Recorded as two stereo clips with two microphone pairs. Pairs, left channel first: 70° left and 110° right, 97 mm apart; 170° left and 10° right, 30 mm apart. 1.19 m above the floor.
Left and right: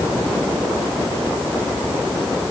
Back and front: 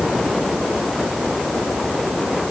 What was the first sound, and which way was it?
Only background noise.